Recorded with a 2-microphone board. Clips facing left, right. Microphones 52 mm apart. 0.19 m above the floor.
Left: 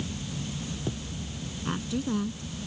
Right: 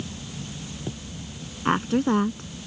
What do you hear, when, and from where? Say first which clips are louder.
1.6 s a woman speaking: right 9 dB; 50° right (ahead or behind)